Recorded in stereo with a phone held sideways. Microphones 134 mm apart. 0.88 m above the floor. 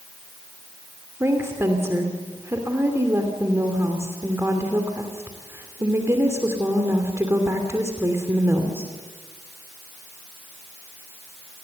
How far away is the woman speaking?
About 3 m.